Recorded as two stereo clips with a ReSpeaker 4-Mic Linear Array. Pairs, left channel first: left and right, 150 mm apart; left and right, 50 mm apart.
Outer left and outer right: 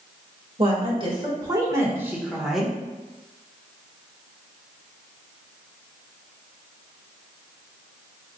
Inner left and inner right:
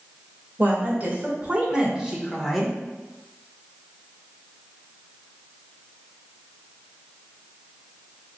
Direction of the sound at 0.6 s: 40° right (ahead or behind).